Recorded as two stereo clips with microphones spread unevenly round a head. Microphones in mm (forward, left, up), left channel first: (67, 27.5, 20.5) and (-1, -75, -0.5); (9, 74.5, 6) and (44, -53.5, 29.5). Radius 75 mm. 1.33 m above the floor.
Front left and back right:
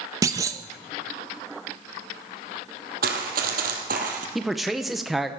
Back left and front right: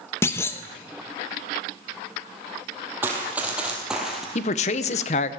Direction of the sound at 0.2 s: Straight behind.